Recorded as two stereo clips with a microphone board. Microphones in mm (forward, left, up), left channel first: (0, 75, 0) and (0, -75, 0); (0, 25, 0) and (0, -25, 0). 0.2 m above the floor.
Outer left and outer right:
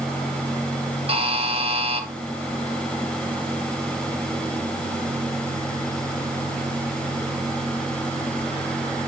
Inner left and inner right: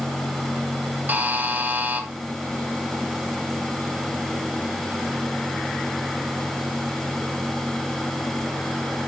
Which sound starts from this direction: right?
A buzzer, at 1.1 s.